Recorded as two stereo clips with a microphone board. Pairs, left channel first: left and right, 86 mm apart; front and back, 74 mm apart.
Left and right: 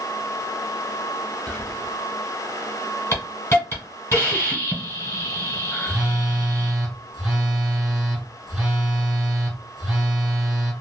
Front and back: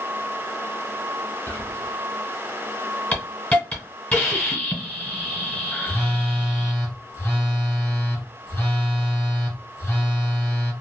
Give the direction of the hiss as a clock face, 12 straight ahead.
10 o'clock.